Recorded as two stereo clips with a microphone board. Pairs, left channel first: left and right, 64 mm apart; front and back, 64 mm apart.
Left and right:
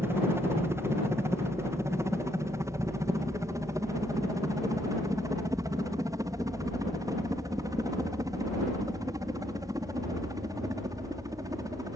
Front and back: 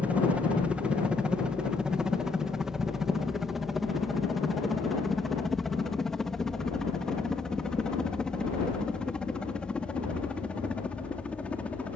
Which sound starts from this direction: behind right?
A helicopter, at 0.0 s.